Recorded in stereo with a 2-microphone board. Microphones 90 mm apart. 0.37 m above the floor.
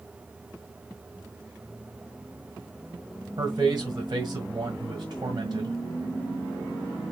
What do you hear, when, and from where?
3.4 s a man speaking: 45° right (ahead or behind), 1.4 m